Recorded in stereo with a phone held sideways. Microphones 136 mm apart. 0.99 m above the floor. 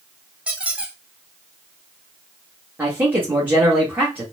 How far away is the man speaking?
About 1.4 m.